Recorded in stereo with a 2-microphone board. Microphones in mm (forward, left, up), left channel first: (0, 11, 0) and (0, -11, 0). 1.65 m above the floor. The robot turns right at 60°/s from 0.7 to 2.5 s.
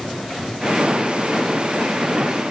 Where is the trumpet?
No trumpet in this recording.